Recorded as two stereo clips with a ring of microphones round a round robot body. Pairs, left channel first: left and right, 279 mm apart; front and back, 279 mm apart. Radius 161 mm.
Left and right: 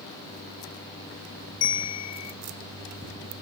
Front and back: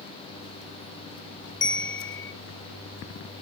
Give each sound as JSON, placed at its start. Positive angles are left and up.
{"t": 1.6, "sound": "a bell", "azimuth_deg": 50, "distance_m": 0.9}